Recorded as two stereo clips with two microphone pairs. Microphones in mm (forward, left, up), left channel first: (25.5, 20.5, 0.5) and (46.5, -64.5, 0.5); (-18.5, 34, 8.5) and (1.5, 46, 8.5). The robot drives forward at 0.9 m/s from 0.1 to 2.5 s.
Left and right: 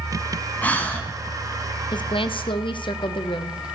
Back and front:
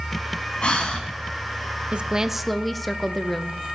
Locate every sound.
0.6 s breathing: 175° left, 2.5 m
1.9 s a woman speaking: 70° left, 0.6 m; by 3.8 s 120° left, 0.6 m